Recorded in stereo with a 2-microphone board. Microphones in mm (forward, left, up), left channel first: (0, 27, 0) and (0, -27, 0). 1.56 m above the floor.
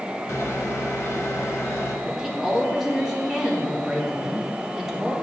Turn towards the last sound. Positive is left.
turn(degrees=-10)  # may be behind; listen again after turning